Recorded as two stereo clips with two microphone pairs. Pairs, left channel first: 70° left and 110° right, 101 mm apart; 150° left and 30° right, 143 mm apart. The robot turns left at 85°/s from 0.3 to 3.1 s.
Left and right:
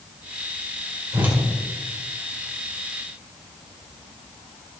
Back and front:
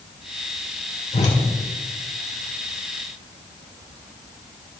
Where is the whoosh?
170° right, 2 m; by 1.4 s 170° left, 2 m.